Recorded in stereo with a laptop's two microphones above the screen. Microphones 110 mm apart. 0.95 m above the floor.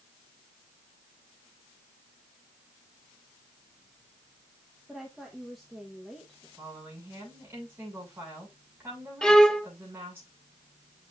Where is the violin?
5° left (ahead or behind), 0.9 m.